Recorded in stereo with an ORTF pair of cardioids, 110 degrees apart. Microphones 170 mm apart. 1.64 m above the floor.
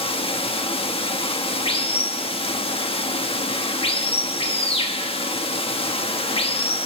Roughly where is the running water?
Ahead left.